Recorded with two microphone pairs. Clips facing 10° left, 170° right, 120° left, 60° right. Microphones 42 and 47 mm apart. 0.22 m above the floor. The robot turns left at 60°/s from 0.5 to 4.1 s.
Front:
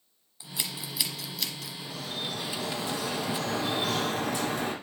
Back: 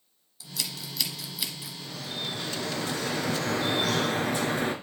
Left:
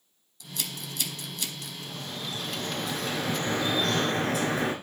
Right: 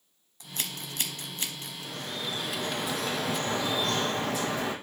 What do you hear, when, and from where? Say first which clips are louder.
0.4 s scissors: even, even; 35° right, 1.1 m; by 1.7 s 110° right, 1.1 m
1.8 s dripping: even, right 2 dB; 80° right, 1.8 m; by 4.7 s 145° left, 1.8 m